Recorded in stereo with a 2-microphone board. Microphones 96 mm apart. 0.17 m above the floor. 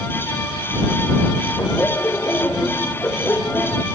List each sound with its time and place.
1.6 s laughter: 25° left (ahead or behind)